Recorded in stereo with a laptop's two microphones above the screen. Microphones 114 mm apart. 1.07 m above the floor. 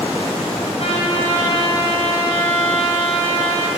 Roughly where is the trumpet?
Left.